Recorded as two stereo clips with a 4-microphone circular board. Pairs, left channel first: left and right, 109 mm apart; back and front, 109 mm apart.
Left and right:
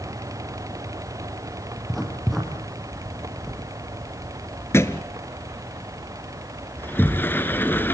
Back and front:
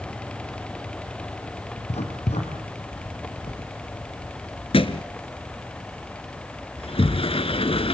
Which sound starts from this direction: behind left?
A thud, at 4.7 s.